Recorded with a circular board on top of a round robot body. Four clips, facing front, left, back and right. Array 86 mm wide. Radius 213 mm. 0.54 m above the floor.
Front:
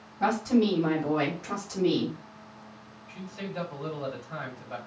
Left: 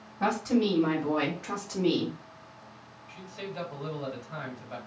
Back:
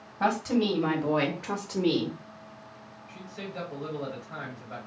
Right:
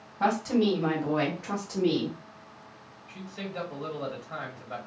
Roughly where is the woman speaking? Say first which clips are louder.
Right 1 dB, front 2 dB; behind right.